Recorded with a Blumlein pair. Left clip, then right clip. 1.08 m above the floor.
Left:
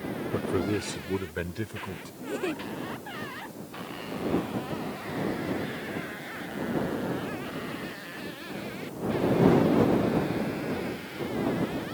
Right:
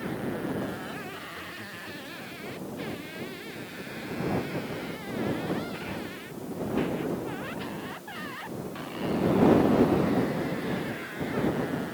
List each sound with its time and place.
0.3 s a man speaking: 55° left; by 2.1 s 30° left
2.2 s a giggle: 40° left